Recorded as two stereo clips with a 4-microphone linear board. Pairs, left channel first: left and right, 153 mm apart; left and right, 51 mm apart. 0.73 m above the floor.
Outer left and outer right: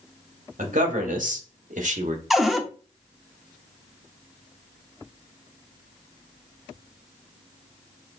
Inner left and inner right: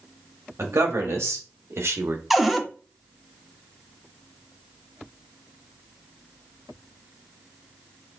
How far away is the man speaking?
About 1.9 m.